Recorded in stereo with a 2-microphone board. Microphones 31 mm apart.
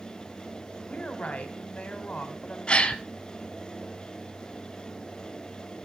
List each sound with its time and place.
0.9 s a woman speaking: 45° left (ahead or behind), 2 m
2.7 s a gasp: 35° left (ahead or behind), 1.1 m